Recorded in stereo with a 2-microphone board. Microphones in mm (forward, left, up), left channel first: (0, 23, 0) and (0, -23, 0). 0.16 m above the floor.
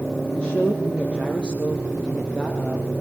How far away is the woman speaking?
About 2.5 m.